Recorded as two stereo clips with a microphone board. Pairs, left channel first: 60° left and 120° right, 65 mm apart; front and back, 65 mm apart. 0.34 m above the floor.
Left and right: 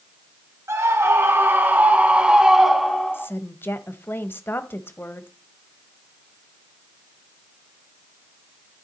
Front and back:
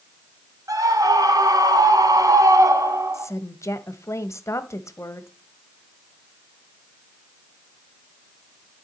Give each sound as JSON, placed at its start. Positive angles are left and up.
{"t": 0.7, "sound": "a scream", "azimuth_deg": -160, "distance_m": 3.0}
{"t": 3.1, "sound": "a woman speaking", "azimuth_deg": 20, "distance_m": 1.4}